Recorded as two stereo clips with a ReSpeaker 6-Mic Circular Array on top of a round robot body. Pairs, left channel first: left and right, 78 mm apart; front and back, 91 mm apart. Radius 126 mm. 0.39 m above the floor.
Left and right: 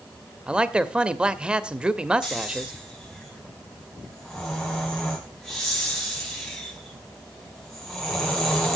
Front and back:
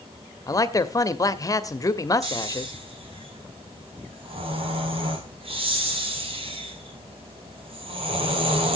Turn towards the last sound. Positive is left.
turn(degrees=175)